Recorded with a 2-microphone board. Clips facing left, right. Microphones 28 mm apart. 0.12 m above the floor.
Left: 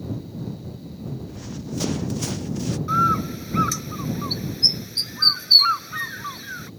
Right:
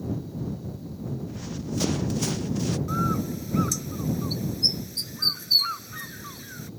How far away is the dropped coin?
No dropped coin in this recording.